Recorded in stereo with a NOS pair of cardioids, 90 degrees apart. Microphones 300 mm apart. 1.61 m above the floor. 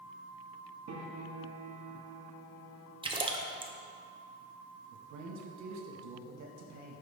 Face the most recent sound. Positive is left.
turn(degrees=-65)